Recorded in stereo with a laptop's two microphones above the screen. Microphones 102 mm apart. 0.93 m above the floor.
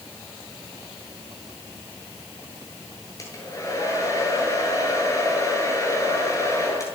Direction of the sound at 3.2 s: 30° left (ahead or behind).